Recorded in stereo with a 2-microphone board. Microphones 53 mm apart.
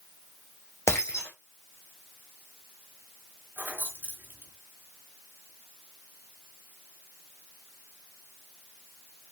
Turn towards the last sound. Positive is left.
turn(degrees=-35)  # may be behind; listen again after turning